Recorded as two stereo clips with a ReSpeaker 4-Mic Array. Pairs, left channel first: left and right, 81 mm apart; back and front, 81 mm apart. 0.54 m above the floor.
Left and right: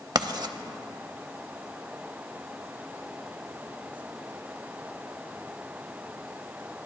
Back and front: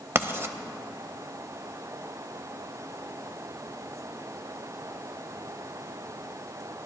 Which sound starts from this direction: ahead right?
Writing, at 0.1 s.